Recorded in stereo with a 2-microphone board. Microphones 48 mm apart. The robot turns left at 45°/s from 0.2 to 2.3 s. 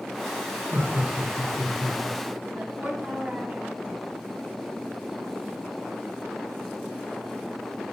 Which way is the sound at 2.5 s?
35° right (ahead or behind).